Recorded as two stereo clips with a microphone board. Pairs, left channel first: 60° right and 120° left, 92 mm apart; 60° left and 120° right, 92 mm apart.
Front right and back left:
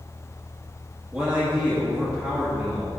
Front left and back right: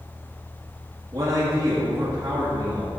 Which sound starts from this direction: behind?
A man speaking, at 1.1 s.